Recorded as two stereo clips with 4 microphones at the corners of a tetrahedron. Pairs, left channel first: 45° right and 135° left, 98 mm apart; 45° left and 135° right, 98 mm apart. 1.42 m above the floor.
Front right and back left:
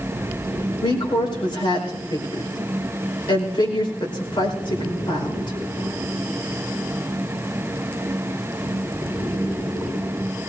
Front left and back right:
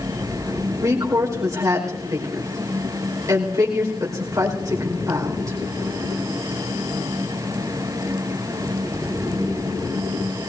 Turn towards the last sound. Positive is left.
turn(degrees=-80)